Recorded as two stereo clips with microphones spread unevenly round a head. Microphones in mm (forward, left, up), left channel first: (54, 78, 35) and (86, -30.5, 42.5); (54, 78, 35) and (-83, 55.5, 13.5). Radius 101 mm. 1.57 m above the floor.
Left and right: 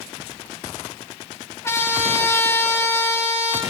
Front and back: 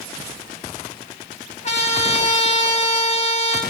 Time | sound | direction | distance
1.6 | a trumpet | 40° left | 4.5 m